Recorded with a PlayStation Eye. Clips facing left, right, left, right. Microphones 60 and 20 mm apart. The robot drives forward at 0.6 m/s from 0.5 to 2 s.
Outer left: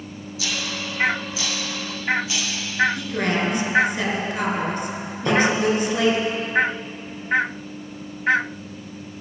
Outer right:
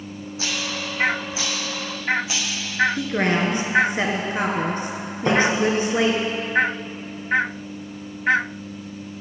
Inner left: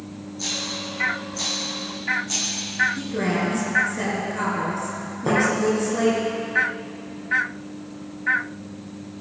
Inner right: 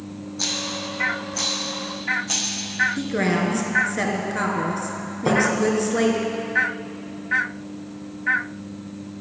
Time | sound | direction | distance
0.4 | a rattle | 40° right (ahead or behind) | 2.0 m
3.0 | a woman speaking | 30° right (ahead or behind) | 1.5 m
5.2 | tapping | 10° right (ahead or behind) | 3 m